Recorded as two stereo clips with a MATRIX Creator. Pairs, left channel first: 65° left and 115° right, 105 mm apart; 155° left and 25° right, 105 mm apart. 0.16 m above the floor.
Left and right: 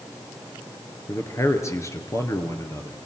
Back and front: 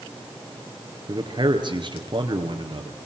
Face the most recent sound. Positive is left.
turn(degrees=10)